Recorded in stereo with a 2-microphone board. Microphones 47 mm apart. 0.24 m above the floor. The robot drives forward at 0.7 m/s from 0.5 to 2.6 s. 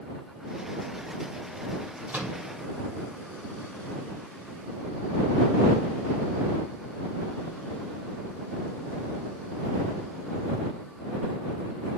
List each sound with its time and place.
2.1 s a microwave: 35° right (ahead or behind), 2.0 m